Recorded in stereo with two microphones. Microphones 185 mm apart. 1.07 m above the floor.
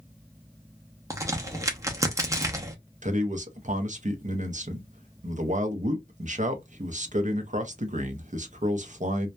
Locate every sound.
1.1 s a crack: 15° right (ahead or behind), 0.6 m
3.0 s a man speaking: 40° right (ahead or behind), 0.6 m